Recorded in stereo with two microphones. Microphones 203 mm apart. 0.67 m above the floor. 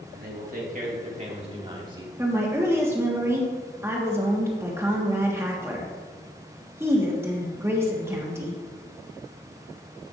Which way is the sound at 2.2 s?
15° right (ahead or behind).